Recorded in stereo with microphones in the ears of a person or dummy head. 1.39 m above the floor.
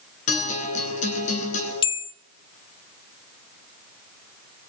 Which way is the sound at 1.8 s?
25° left (ahead or behind).